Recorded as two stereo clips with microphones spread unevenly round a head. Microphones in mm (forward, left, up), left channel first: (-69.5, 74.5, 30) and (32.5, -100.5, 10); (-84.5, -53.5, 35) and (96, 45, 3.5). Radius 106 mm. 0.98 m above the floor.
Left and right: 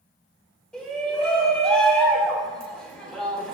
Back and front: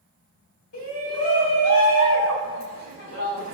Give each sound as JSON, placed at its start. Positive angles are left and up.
{"t": 0.7, "sound": "a shout", "azimuth_deg": -155, "distance_m": 8.0}